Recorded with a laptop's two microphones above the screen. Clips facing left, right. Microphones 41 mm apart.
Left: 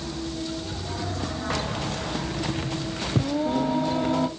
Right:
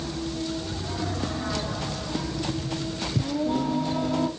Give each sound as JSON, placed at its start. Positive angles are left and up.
{"t": 1.5, "sound": "keys jangling", "side_deg": 50, "distance_m": 0.6}
{"t": 3.2, "sound": "singing", "side_deg": 25, "distance_m": 1.5}